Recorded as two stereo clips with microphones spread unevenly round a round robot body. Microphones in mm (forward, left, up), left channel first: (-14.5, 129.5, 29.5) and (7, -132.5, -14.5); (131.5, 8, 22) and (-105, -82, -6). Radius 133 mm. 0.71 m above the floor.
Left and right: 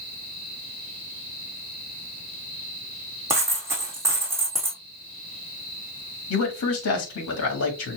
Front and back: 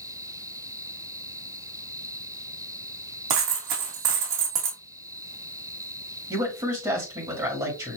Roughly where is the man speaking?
Behind left.